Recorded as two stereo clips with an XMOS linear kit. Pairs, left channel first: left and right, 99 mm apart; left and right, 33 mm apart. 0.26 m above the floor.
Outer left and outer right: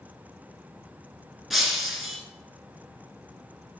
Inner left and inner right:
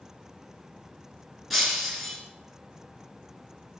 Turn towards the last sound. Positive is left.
turn(degrees=0)  # may be behind; listen again after turning